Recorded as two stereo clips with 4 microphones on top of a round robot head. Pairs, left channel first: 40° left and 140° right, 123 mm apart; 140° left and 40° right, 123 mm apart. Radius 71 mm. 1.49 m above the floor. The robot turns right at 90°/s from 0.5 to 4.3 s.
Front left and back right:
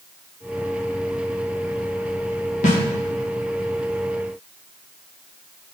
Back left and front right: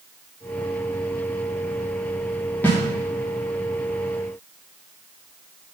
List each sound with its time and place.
2.6 s a snare drum: 65° left, 1.7 m; by 2.8 s 75° left, 1.7 m